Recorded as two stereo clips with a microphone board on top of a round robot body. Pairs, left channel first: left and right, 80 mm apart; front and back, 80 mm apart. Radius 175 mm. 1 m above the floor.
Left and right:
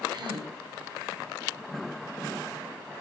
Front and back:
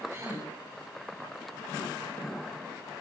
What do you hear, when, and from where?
0.1 s a gasp: 120° right, 4.5 m